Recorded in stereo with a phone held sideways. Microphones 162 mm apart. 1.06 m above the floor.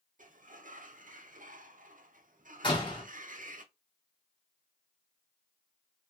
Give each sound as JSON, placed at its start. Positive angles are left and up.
{"t": 0.2, "sound": "a sliding door", "side_deg": -55, "distance_m": 0.5}
{"t": 2.6, "sound": "a door slam", "side_deg": 30, "distance_m": 1.5}